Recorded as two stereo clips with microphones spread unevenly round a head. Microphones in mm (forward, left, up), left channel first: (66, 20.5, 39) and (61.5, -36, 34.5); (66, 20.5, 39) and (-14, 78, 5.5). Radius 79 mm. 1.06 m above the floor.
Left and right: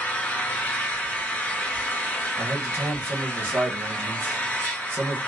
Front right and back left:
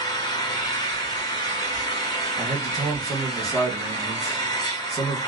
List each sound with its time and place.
0.0 s an engine running: 20° left, 1.2 m
2.4 s a man speaking: 135° right, 0.9 m